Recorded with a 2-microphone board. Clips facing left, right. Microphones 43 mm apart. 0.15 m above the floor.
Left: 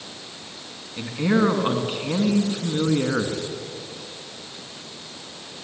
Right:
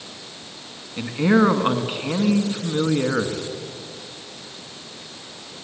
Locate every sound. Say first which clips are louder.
1.0 s a man speaking: right 3 dB; 20° right (ahead or behind), 1.8 m